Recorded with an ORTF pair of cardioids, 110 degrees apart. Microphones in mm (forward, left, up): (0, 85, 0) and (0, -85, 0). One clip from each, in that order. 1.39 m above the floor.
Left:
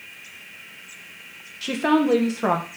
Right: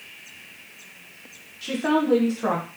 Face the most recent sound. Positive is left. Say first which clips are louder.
# left 2 dB
turn(degrees=30)